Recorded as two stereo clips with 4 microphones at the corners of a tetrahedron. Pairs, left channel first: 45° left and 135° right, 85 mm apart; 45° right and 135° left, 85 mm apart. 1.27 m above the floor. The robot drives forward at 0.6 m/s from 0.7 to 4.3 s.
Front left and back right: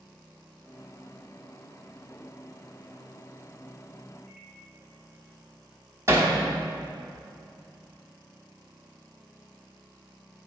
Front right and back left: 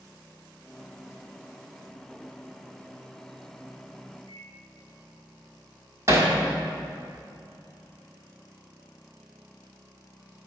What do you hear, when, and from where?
4.3 s a microwave: 140° left, 1.9 m
6.1 s hammering: straight behind, 1.2 m